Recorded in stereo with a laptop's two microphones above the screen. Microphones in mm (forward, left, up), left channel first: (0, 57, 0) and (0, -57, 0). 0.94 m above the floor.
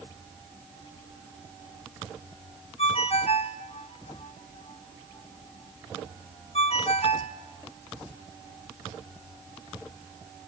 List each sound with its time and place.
2.8 s a ringtone: 60° left (ahead or behind), 2 m